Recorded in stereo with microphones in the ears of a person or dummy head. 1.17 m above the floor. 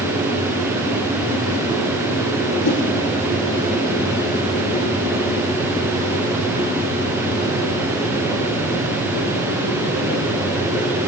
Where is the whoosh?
65° left (ahead or behind), 8 m.